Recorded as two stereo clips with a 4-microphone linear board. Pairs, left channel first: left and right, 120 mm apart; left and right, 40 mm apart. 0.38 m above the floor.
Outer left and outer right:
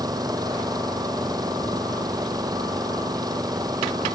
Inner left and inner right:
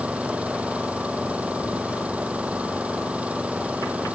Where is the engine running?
35° right (ahead or behind).